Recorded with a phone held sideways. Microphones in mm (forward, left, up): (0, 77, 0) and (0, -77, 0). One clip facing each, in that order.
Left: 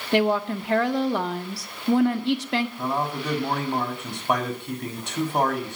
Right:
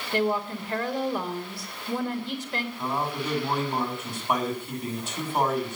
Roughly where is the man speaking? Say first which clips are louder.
Left 2 dB; left.